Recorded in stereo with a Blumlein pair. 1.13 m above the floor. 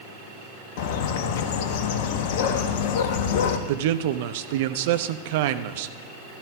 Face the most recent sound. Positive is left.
turn(degrees=-50)